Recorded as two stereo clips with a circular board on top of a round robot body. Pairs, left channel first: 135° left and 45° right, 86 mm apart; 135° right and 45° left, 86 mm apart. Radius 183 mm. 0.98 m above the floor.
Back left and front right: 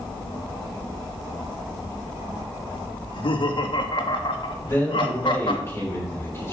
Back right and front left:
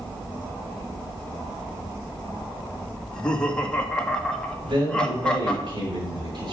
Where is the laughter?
145° left, 2 m.